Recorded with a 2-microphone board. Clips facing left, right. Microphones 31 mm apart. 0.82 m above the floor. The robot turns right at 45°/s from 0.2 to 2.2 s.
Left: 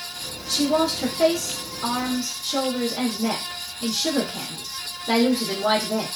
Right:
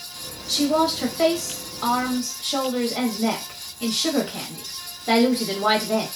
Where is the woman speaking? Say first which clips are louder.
Right 1 dB; 175° right, 1.0 m; by 6.1 s 100° right, 1.0 m.